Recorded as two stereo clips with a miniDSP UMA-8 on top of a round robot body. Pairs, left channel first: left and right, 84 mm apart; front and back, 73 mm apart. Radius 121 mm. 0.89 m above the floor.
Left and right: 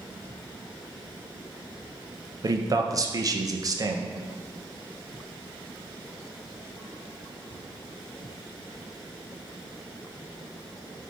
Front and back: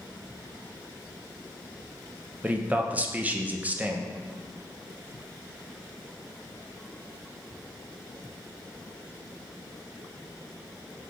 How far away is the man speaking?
About 0.6 m.